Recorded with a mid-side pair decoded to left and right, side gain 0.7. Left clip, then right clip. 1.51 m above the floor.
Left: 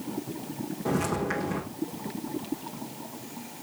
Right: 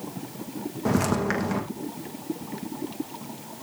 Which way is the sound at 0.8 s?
35° right.